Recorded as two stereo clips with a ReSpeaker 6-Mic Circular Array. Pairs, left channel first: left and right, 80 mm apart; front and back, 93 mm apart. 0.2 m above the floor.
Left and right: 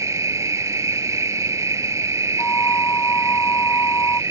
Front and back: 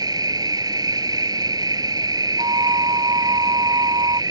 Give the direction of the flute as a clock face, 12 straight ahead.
7 o'clock.